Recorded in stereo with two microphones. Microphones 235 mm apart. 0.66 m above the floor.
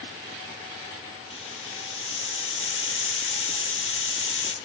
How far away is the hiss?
About 0.5 m.